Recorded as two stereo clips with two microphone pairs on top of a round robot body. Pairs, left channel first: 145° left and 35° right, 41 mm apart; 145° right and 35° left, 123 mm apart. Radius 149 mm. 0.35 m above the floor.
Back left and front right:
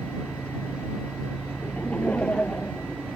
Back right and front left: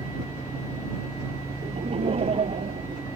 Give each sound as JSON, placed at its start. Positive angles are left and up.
{"t": 1.6, "sound": "laughter", "azimuth_deg": 80}